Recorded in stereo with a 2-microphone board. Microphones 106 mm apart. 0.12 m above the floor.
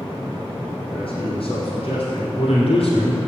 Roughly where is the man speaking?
Left.